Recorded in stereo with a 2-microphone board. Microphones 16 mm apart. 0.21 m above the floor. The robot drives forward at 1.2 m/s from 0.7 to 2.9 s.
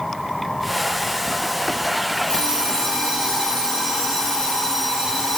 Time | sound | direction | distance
2.3 | an alarm clock | 75° left (ahead or behind) | 2.5 m